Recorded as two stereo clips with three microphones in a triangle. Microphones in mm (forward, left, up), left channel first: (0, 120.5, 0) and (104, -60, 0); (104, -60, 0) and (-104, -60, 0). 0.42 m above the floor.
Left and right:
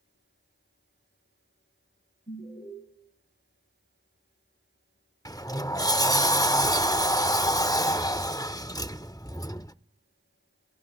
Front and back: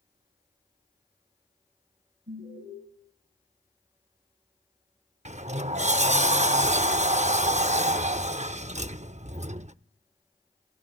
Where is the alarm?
160° left, 7.5 m.